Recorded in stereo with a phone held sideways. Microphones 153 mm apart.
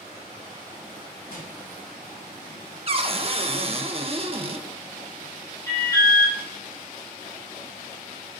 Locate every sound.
1.3 s crushing: 75° left (ahead or behind), 3.5 m
2.9 s a cupboard door: 40° right (ahead or behind), 0.5 m
5.7 s an alarm: 20° left (ahead or behind), 1.7 m